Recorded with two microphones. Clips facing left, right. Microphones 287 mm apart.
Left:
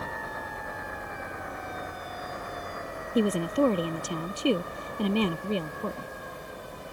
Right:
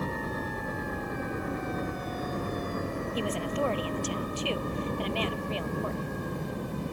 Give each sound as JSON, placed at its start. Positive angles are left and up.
{"t": 0.0, "sound": "a helicopter", "side_deg": -35}
{"t": 3.1, "sound": "a woman speaking", "side_deg": 50}